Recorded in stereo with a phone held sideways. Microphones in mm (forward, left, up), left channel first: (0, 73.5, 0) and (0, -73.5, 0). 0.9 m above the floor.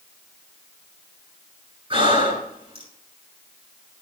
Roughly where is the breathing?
Right.